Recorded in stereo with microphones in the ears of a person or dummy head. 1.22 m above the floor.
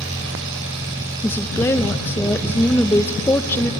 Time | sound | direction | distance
0.0 | an engine running | 70° right (ahead or behind) | 9 m
1.2 | a woman speaking | 10° left (ahead or behind) | 0.9 m